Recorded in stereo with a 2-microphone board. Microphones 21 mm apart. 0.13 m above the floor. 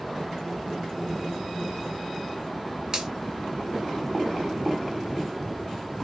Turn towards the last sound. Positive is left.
turn(degrees=-40)  # may be behind; listen again after turning